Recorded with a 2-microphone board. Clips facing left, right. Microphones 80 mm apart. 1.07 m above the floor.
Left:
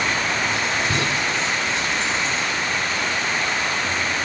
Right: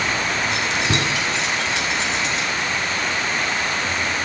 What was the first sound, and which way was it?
Keys jangling, 80° right.